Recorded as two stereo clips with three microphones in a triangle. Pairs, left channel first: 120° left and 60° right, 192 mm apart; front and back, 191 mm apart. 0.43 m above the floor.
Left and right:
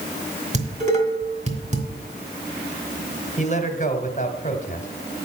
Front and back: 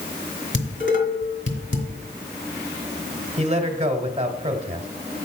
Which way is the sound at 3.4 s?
145° left.